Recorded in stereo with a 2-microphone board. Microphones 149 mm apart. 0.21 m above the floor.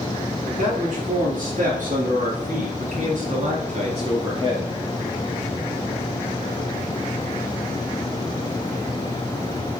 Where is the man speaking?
60° right (ahead or behind), 4 m; by 4.8 s 15° right (ahead or behind), 1.3 m.